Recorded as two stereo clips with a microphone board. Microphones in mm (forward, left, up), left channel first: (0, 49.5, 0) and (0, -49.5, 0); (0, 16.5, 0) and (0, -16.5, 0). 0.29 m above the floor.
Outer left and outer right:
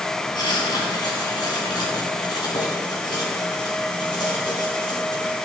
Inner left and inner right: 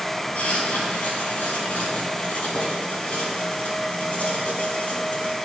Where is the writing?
45° left (ahead or behind), 3 m.